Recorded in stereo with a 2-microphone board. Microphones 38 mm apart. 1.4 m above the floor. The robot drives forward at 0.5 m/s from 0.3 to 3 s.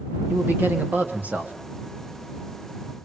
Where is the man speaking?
60° right (ahead or behind), 2.5 m; by 1.6 s 50° right (ahead or behind), 3 m.